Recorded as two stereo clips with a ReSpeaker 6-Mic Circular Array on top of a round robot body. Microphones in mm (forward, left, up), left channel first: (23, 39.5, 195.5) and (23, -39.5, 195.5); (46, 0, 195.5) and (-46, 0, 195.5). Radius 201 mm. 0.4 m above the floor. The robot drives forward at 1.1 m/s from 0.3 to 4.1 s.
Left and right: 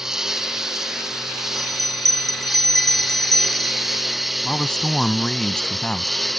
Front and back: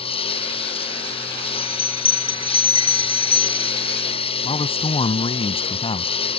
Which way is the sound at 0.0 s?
5° right.